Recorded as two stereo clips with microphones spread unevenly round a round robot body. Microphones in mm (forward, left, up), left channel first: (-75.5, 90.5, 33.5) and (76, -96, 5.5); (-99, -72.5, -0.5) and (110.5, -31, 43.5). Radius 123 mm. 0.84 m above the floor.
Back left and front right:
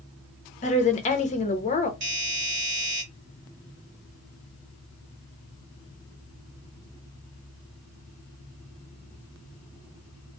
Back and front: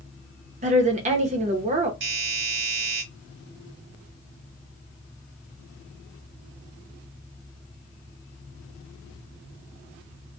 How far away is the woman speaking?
About 0.7 m.